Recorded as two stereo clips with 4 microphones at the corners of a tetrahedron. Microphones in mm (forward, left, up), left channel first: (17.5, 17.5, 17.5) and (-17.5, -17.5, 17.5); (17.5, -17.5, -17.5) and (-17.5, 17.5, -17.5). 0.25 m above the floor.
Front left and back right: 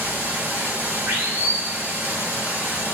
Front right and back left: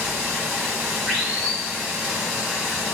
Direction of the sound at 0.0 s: 115° right.